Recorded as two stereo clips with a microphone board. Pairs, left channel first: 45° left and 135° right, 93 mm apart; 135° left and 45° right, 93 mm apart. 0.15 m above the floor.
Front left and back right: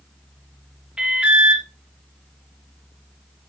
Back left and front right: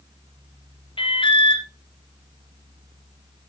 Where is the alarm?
145° left, 3 m.